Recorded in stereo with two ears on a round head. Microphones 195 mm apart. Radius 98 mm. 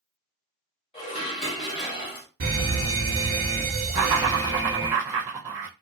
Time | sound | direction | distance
0.9 | dishes clattering | 25° left (ahead or behind) | 1.4 m
2.4 | a fire alarm | 40° right (ahead or behind) | 1.5 m
3.9 | laughter | 10° right (ahead or behind) | 0.5 m